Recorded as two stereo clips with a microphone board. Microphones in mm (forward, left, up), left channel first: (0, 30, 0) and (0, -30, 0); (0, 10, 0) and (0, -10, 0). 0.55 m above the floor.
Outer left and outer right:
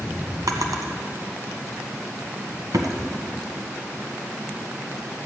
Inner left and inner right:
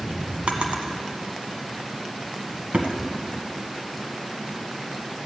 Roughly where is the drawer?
Right.